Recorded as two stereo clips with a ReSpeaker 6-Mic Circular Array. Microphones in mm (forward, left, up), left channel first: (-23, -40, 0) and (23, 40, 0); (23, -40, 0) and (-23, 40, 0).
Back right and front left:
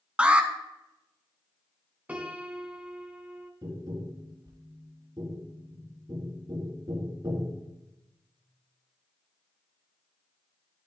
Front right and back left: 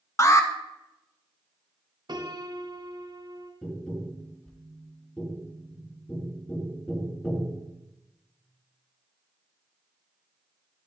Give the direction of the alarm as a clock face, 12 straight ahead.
12 o'clock.